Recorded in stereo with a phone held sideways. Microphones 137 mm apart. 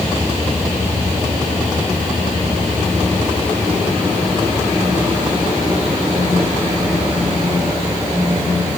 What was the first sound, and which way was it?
Only background noise.